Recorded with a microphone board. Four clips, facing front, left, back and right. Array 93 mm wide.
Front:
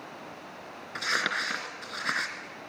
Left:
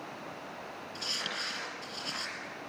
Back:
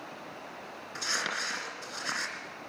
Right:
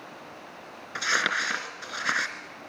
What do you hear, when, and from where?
0.9 s crumpling: 70° right, 3 m